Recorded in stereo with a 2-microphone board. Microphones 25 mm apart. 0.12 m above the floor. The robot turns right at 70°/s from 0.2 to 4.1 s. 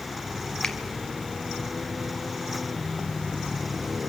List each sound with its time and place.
0.6 s a finger snap: 25° left (ahead or behind), 2 m; by 0.8 s 20° left (ahead or behind), 2 m